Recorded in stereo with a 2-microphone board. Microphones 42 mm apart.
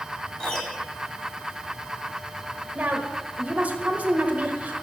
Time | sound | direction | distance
0.4 | a piano | 20° left (ahead or behind) | 1.1 m
2.8 | a woman speaking | 35° right (ahead or behind) | 1.3 m